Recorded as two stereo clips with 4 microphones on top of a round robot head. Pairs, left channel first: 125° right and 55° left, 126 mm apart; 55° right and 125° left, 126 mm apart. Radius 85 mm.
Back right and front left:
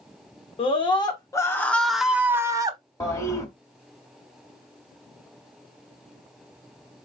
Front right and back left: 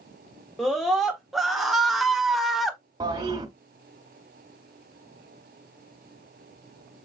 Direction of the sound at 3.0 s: 175° left.